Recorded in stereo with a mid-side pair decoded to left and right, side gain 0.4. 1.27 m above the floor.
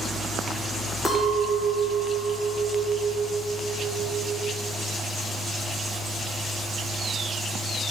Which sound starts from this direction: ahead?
A clink, at 1.1 s.